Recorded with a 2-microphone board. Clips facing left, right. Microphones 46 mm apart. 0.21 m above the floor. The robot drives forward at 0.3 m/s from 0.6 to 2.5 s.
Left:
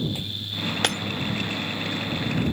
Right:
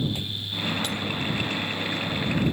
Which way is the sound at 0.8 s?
70° left (ahead or behind).